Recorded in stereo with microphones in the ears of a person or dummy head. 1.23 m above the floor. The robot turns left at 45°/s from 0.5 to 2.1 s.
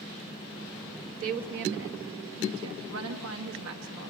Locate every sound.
1.2 s a woman speaking: 50° right, 1.4 m; by 4.1 s 90° right, 1.4 m